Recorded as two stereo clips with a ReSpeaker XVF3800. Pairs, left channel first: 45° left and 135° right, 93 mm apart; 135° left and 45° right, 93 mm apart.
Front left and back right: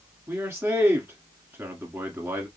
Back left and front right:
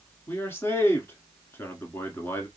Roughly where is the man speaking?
Behind.